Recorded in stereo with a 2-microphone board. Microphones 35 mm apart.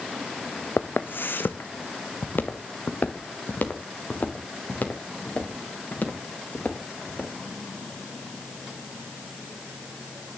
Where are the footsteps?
65° left (ahead or behind), 0.7 m; by 7.3 s 55° left (ahead or behind), 5 m.